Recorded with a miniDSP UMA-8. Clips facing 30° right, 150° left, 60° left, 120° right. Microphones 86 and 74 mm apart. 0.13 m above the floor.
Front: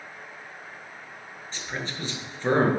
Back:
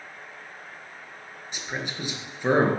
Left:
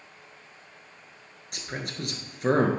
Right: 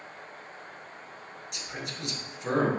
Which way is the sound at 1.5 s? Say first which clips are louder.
Back 1 dB, left 4 dB; 80° left.